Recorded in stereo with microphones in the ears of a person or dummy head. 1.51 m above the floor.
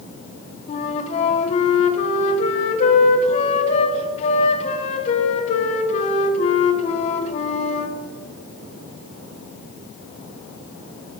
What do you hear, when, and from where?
0.7 s a flute: 35° left (ahead or behind), 0.9 m